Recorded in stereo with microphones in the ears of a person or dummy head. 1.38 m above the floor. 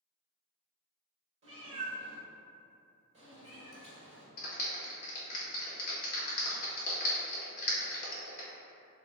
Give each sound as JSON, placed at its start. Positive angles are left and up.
{"t": 1.4, "sound": "a cat meowing", "side_deg": -35, "distance_m": 1.2}
{"t": 4.4, "sound": "a clap", "side_deg": 50, "distance_m": 0.9}